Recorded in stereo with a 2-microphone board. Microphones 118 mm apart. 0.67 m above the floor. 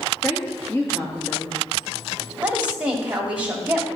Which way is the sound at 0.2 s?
25° left (ahead or behind).